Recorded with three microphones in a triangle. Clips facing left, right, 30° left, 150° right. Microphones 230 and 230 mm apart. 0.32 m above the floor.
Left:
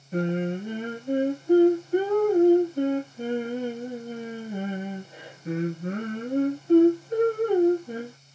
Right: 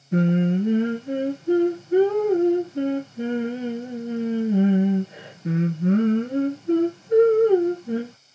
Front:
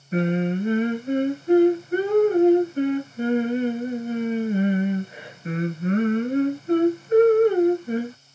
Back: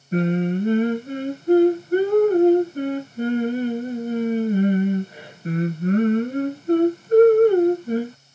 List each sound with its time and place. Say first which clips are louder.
0.1 s singing: right 6 dB, back 1 dB; 100° right, 3 m